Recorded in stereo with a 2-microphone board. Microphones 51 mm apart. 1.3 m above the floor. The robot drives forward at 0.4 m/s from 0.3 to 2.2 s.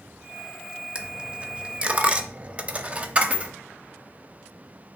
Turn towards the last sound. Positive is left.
turn(degrees=-20)  # may be behind; listen again after turning